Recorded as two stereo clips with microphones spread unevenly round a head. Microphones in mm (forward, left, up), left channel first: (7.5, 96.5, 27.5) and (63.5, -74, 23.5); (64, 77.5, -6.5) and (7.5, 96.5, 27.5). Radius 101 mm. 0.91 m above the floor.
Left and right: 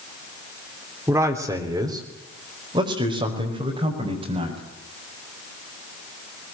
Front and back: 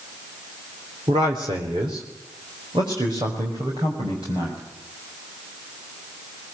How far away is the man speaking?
About 3 m.